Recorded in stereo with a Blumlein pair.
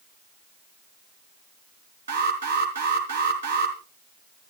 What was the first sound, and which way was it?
An alarm, 70° right.